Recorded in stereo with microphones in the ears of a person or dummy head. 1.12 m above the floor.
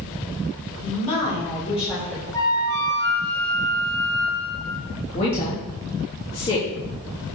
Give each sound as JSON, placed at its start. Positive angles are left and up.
{"t": 0.8, "sound": "a woman speaking", "side_deg": 40, "distance_m": 3.0}
{"t": 2.3, "sound": "a flute", "side_deg": 20, "distance_m": 3.0}
{"t": 5.1, "sound": "a woman speaking", "side_deg": 30, "distance_m": 1.9}